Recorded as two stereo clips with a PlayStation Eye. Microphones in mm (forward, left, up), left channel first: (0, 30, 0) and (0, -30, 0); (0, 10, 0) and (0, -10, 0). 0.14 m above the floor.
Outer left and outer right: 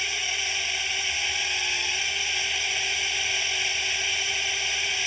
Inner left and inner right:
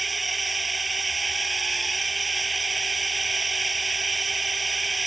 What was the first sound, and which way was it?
A drone, centre (ahead or behind).